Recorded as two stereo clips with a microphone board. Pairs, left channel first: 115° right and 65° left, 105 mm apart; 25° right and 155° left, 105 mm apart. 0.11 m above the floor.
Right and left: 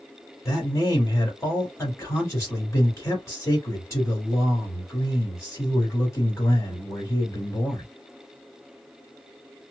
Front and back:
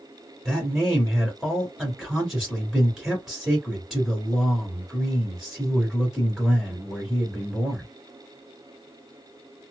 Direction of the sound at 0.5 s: 120° right.